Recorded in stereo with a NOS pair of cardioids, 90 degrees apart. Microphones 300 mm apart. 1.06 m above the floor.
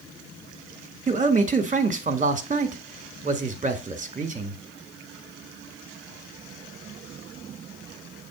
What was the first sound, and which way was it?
A man speaking, 25° right.